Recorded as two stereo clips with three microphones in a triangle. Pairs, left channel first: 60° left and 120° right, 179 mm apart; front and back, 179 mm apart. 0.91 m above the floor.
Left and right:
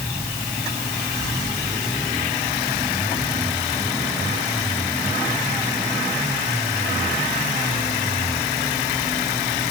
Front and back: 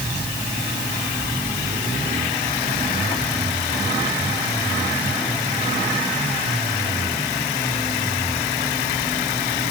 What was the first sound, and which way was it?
Only background noise.